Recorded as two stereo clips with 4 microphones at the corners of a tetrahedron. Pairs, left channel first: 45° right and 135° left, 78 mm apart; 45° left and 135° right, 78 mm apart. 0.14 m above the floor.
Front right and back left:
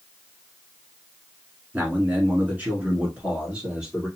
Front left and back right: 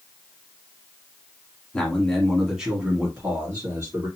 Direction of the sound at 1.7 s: 100° left.